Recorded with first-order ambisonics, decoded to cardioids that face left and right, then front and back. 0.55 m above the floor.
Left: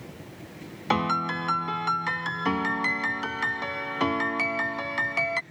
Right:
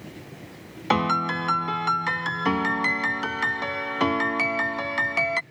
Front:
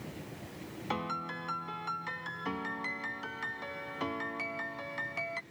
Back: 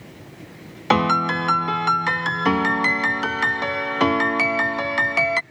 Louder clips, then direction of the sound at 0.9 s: Right 3 dB, back 18 dB; 170° right.